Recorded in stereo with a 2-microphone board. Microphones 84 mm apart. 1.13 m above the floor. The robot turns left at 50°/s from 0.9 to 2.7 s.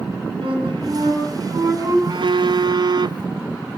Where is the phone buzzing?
85° right, 0.6 m; by 3.3 s 115° right, 0.6 m.